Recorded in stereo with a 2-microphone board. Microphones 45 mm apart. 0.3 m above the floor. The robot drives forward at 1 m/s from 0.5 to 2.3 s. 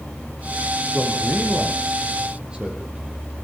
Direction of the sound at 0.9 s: 30° right (ahead or behind).